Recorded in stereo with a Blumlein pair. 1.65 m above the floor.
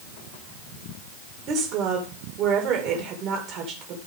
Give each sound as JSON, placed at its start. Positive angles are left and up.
{"t": 1.5, "sound": "a woman speaking", "azimuth_deg": -35, "distance_m": 2.0}